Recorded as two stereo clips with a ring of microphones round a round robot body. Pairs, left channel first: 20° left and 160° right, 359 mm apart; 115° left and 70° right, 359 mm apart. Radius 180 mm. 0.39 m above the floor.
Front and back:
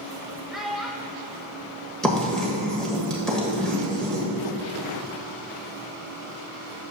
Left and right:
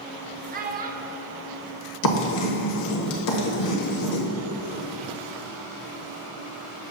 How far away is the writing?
About 1.3 m.